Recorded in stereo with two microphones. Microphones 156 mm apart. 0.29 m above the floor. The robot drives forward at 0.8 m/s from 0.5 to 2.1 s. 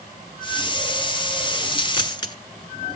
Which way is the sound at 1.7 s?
35° left (ahead or behind).